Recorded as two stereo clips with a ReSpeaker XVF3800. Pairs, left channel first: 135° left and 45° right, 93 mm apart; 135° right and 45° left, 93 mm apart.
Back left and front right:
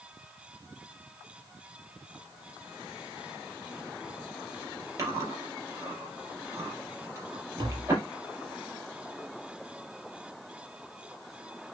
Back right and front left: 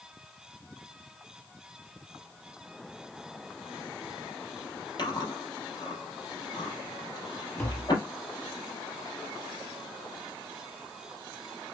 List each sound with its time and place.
5.0 s chewing: 100° right, 6.5 m
7.6 s tapping: 75° right, 4 m